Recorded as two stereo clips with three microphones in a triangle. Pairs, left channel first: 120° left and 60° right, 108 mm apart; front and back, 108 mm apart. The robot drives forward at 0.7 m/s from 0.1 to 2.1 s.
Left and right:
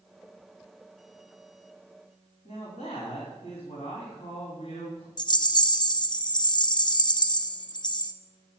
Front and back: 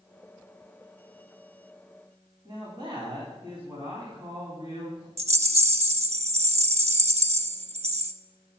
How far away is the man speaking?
About 3.5 m.